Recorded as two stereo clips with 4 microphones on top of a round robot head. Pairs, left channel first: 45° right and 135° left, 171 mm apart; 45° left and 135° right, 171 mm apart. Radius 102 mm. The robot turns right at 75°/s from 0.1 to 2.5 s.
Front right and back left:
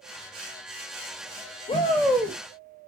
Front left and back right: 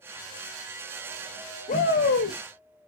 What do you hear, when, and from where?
1.7 s a shout: 5° left, 0.9 m; by 2.4 s 60° left, 0.9 m